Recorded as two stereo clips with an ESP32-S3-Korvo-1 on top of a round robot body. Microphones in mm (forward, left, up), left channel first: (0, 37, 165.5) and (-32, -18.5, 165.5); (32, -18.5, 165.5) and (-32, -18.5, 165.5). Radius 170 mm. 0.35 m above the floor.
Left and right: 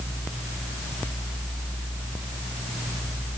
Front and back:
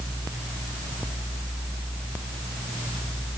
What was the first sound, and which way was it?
Only background noise.